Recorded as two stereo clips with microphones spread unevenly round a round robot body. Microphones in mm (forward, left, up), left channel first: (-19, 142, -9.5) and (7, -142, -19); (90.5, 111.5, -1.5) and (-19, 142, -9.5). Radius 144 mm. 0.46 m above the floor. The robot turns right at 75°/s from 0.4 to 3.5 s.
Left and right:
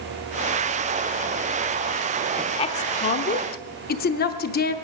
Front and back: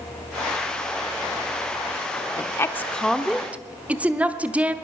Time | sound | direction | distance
2.4 | a woman speaking | 20° left | 0.7 m